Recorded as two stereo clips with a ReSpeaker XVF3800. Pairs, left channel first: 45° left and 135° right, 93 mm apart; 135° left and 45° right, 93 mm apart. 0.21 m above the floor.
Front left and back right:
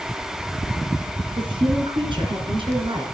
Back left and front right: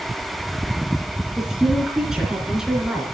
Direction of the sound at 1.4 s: 130° right.